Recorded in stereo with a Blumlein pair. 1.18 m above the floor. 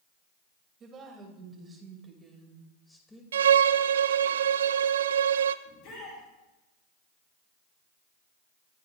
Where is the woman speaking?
20° right, 5.5 m; by 3.2 s 10° left, 5 m.